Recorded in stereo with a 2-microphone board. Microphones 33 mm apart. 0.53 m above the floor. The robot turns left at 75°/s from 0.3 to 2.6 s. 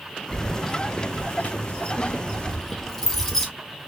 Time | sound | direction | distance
0.3 | keys jangling | 5° right (ahead or behind) | 0.9 m